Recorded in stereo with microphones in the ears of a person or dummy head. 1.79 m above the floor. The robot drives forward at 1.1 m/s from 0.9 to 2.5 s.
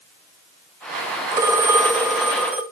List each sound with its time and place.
1.3 s a phone ringing: 15° right (ahead or behind), 0.7 m; by 2.6 s 10° right (ahead or behind), 1.3 m